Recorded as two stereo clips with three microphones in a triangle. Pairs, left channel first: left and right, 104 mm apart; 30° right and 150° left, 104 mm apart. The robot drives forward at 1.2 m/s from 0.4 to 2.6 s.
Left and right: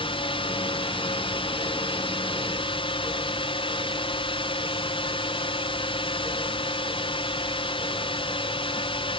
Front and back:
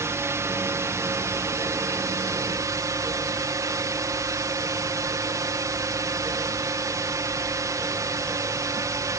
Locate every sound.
0.0 s a drone: 90° left; by 9.2 s 95° left